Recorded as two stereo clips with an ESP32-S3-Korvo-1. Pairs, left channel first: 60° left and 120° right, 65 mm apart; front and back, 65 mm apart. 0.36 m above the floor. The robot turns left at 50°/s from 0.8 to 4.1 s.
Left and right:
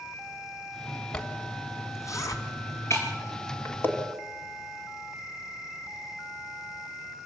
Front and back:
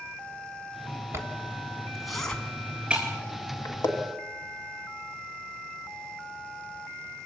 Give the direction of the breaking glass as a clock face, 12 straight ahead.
9 o'clock.